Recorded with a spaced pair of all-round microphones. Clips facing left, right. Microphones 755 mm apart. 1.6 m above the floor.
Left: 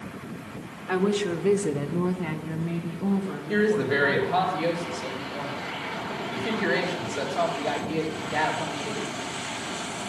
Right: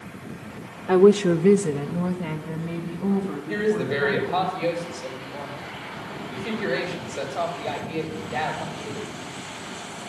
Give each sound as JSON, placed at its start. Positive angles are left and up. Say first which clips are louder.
{"t": 0.9, "sound": "a woman speaking", "louder": "right 9 dB", "side_deg": -65, "distance_m": 0.8}
{"t": 3.5, "sound": "a woman speaking", "louder": "left 1 dB", "side_deg": 45, "distance_m": 3.5}